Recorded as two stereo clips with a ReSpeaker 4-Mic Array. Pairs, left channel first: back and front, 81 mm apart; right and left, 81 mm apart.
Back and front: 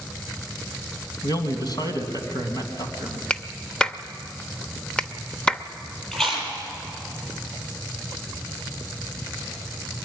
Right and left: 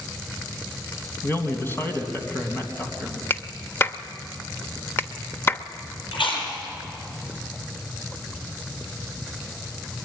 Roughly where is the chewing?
Right.